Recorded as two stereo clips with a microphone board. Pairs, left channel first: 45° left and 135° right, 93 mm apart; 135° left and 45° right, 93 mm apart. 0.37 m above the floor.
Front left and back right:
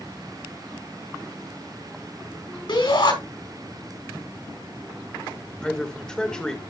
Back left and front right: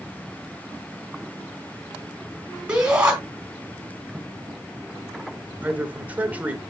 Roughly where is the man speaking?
Ahead.